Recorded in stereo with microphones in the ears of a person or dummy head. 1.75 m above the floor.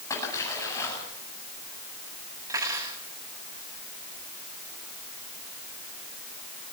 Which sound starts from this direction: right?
Cutlery clinking, at 2.5 s.